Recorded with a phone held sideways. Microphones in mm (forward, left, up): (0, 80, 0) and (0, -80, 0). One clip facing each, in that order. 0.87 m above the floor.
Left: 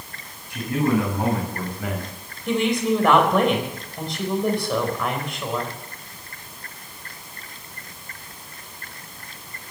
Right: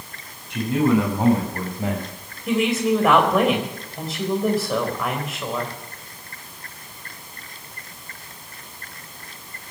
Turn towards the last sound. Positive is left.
turn(degrees=-5)  # may be behind; listen again after turning